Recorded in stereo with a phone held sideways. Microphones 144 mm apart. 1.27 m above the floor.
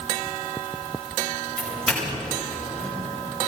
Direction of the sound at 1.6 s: 5° left (ahead or behind).